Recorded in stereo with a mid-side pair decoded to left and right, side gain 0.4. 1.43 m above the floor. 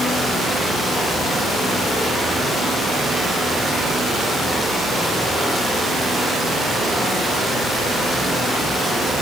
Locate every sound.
Only background noise.